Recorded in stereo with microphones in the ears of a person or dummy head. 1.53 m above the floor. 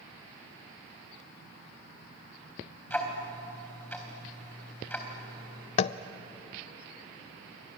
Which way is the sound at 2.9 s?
10° left (ahead or behind).